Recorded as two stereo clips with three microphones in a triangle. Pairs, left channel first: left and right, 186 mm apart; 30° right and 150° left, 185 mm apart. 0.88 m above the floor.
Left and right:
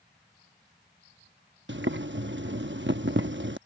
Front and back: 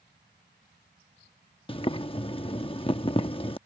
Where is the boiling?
90° right.